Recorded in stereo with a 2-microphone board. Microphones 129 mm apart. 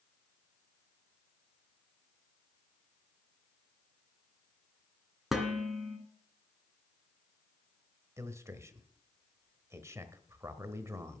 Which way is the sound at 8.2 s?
20° right (ahead or behind).